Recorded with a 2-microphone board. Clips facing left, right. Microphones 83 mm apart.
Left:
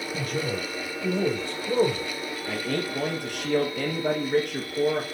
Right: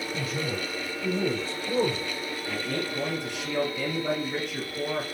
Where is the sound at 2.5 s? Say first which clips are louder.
Left 3 dB; 60° left (ahead or behind), 2.5 m.